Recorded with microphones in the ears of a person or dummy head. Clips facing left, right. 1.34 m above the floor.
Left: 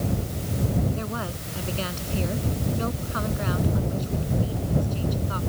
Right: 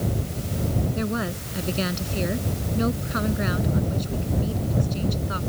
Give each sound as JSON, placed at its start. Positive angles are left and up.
{"t": 0.9, "sound": "a woman speaking", "side_deg": -30}